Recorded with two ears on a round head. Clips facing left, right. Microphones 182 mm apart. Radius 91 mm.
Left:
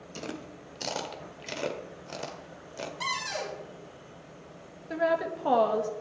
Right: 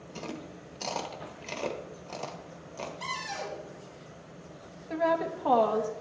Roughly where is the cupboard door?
Left.